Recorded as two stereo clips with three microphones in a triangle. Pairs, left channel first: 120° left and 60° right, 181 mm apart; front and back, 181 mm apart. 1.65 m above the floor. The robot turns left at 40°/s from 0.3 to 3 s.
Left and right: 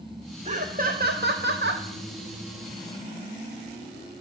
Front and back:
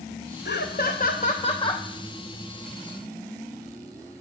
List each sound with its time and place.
0.5 s laughter: 10° right, 0.8 m; by 1.9 s 70° right, 0.8 m